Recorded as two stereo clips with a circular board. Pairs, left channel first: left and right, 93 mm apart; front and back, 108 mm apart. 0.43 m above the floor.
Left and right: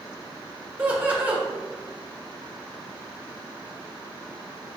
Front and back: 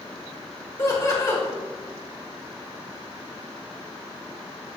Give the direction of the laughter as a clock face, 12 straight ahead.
1 o'clock.